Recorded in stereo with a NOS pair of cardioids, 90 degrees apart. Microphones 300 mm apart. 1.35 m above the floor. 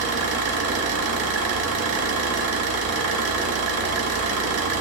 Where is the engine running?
55° right, 1.2 m.